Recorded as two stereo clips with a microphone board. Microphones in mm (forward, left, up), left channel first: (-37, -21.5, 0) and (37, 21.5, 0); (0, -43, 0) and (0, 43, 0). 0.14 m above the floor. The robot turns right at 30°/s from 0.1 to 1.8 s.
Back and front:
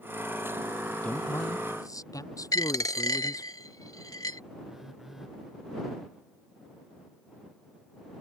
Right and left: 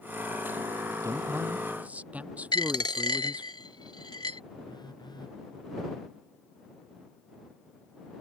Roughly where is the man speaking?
Behind left.